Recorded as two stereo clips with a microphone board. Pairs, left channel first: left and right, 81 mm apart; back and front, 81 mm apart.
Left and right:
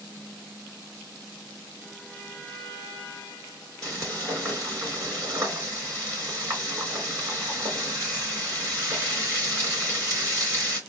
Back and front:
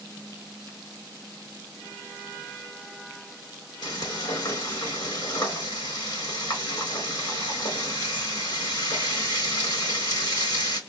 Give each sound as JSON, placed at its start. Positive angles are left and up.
{"t": 3.8, "sound": "frying", "azimuth_deg": -145, "distance_m": 3.5}